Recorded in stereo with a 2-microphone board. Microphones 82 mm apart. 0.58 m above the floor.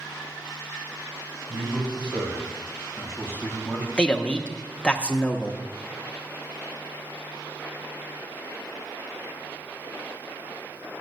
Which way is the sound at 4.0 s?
10° left (ahead or behind).